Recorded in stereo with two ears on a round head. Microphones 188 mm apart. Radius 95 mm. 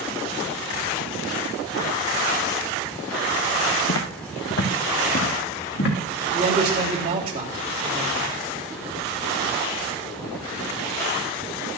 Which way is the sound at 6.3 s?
40° right (ahead or behind).